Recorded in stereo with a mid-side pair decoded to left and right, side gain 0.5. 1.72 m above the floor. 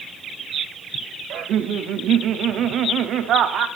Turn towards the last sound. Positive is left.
turn(degrees=-65)